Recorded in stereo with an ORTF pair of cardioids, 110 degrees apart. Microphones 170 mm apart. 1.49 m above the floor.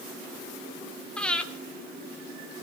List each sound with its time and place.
1.2 s breathing: 5° left, 1.3 m